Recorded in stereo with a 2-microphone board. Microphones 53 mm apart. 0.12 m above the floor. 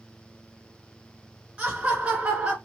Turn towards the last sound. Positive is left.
turn(degrees=-25)  # may be behind; listen again after turning